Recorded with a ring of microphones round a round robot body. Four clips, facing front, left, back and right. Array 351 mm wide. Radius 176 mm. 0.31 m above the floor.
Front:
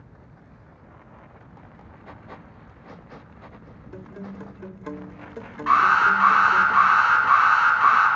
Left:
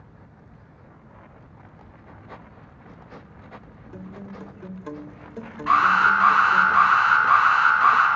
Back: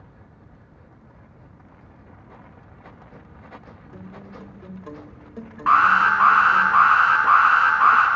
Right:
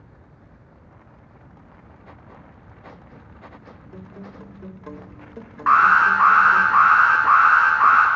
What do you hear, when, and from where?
3.9 s a guitar: 5° right, 0.6 m
5.7 s an alarm: 120° right, 2.5 m